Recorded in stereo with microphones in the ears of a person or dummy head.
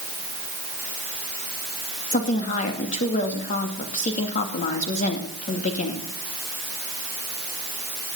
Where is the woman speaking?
40° left (ahead or behind), 2.5 m.